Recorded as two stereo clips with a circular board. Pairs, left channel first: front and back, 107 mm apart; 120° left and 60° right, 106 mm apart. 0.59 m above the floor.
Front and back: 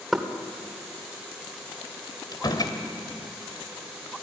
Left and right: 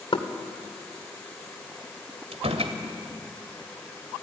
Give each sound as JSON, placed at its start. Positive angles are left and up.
{"t": 0.1, "sound": "knocking", "azimuth_deg": 90, "distance_m": 1.9}
{"t": 2.3, "sound": "a door slam", "azimuth_deg": -45, "distance_m": 2.0}